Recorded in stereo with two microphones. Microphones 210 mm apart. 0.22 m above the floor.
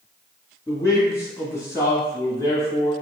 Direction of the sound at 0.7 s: 15° left (ahead or behind).